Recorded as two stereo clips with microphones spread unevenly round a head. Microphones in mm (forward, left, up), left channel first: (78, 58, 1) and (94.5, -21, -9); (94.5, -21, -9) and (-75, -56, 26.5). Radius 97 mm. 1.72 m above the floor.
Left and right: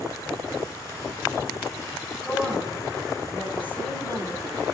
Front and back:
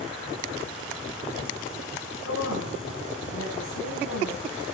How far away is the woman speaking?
About 10 m.